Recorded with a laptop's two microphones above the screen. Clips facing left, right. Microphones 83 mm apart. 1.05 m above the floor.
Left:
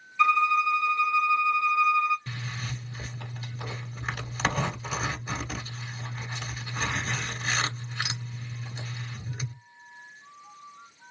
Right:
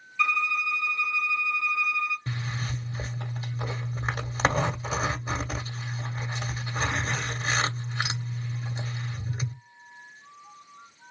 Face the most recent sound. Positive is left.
turn(degrees=-30)  # may be behind; listen again after turning